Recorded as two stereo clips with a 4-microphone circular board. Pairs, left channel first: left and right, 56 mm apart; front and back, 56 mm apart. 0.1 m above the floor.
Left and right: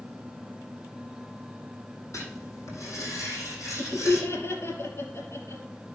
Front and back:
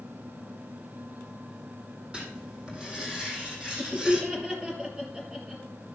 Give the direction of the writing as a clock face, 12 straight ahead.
8 o'clock.